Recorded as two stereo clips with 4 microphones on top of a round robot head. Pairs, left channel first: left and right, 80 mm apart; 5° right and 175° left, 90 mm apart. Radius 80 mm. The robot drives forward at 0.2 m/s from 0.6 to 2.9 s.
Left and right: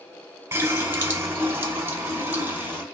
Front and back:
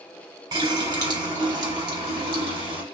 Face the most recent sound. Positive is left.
turn(degrees=-155)